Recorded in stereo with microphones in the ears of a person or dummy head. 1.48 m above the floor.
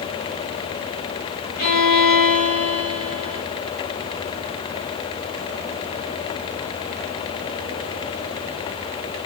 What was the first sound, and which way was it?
A violin, 45° left (ahead or behind).